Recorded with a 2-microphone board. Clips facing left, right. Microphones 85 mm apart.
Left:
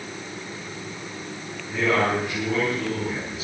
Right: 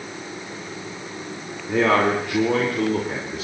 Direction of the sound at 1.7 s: 75° right (ahead or behind).